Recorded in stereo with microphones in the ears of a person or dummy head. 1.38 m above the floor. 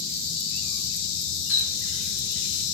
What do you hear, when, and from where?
1.5 s a running tap: 65° left (ahead or behind), 3.5 m